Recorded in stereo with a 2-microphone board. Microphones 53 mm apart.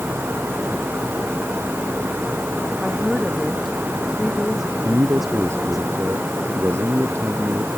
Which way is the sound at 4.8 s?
60° right (ahead or behind).